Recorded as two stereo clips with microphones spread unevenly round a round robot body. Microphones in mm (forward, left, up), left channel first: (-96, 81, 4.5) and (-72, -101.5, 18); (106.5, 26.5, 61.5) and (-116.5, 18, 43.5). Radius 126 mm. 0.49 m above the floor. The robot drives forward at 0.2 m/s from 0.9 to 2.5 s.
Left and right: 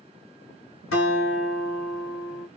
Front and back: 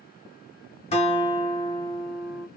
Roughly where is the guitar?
Ahead left.